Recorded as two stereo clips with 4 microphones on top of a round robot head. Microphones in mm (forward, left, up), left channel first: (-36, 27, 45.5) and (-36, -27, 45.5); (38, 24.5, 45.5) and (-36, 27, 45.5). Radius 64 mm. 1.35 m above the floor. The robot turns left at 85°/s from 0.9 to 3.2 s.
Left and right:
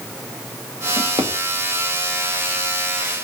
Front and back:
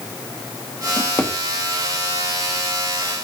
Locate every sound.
1.0 s a drawer: 55° right, 1.5 m; by 1.3 s 85° right, 1.5 m